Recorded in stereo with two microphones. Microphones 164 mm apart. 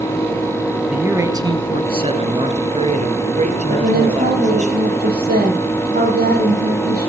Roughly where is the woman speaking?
Right.